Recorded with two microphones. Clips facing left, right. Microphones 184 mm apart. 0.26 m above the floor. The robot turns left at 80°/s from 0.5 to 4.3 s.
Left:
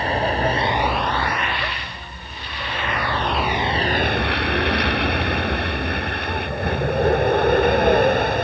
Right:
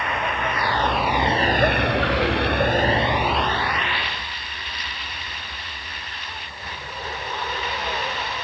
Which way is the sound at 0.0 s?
30° left (ahead or behind).